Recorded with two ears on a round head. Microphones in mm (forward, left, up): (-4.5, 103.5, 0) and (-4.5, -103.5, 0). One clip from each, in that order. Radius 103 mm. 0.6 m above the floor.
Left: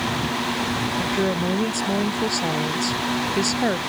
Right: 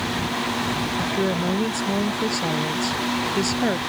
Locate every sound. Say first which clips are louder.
1.0 s a woman speaking: left 1 dB; 10° left (ahead or behind)